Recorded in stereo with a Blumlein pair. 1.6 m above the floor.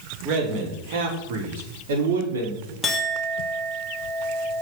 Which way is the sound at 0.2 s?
35° right.